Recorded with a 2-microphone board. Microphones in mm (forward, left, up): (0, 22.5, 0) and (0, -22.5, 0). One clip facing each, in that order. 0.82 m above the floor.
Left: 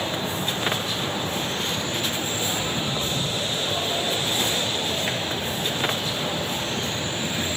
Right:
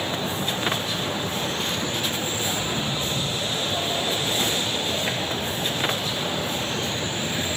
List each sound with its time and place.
2.5 s footsteps: 25° left (ahead or behind), 3.5 m; by 6.9 s 35° left (ahead or behind), 7 m